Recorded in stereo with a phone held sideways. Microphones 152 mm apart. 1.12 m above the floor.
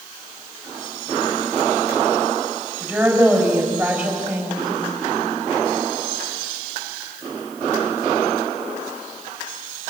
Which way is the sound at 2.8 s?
5° right (ahead or behind).